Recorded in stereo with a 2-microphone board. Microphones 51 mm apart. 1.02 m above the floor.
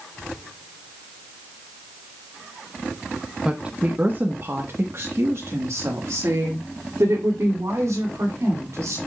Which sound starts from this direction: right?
A woman speaking, at 3.5 s.